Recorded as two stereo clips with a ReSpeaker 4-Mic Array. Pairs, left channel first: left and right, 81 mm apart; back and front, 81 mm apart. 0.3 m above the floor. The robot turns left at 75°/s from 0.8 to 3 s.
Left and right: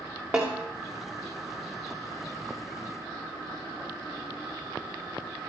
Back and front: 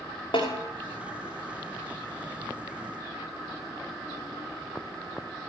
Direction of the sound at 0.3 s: 160° right.